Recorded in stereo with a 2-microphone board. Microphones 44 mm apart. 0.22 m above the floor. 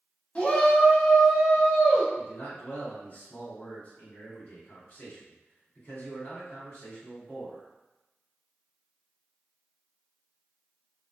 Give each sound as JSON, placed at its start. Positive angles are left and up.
{"t": 0.3, "sound": "a shout", "side_deg": 30, "distance_m": 1.1}
{"t": 2.2, "sound": "a man speaking", "side_deg": 45, "distance_m": 1.8}